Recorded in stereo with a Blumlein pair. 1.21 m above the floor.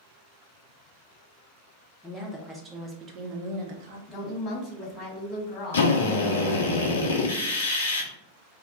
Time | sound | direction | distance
2.0 | a woman speaking | 5° left | 1.0 m
4.1 | a woman speaking | 25° left | 1.2 m
5.7 | a drill | 65° left | 0.6 m